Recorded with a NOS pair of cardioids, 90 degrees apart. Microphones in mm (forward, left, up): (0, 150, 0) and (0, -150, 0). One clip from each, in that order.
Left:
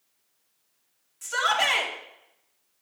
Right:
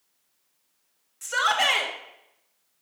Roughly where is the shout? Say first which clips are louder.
Right 1 dB; ahead right.